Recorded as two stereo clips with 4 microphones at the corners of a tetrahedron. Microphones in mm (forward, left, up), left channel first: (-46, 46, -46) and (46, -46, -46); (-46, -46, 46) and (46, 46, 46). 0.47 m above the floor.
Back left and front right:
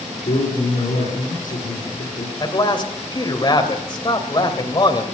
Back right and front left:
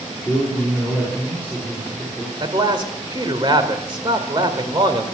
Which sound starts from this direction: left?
A man speaking, at 2.4 s.